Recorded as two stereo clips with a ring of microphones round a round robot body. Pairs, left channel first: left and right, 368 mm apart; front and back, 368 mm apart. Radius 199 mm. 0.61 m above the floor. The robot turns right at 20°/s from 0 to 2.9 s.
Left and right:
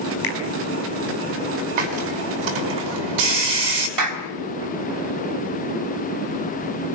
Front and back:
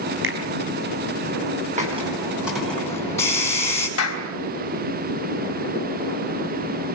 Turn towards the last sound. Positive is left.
turn(degrees=-55)